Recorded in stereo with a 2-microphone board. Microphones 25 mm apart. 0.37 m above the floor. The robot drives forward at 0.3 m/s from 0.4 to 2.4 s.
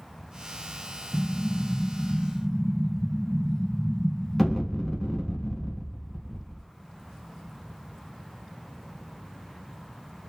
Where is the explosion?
10° left (ahead or behind), 1.1 m; by 6.7 s 15° left (ahead or behind), 0.9 m.